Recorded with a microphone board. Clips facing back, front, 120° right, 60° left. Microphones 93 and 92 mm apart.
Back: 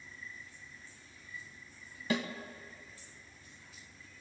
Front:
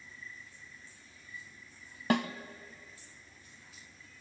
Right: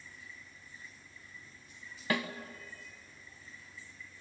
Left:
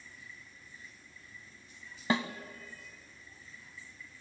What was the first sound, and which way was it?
A snare drum, straight ahead.